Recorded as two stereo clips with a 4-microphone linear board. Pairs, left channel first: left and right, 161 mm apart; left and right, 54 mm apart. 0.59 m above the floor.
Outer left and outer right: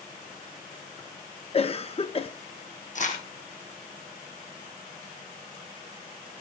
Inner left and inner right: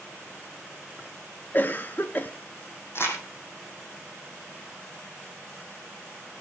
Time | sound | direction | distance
1.5 | a cough | 40° left (ahead or behind) | 0.7 m
3.0 | crumpling | 50° left (ahead or behind) | 4 m